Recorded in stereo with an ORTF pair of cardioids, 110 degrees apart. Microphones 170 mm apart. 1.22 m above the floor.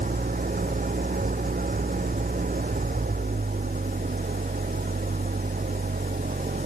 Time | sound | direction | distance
0.0 | an engine running | 55° right | ?